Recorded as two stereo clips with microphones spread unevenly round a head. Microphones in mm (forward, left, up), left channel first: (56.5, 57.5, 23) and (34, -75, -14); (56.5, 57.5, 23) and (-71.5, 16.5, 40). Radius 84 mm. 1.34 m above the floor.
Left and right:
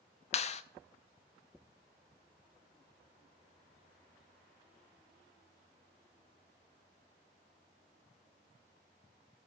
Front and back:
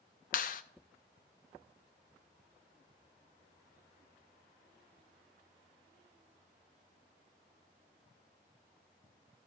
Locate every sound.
0.3 s a clap: 40° left, 0.6 m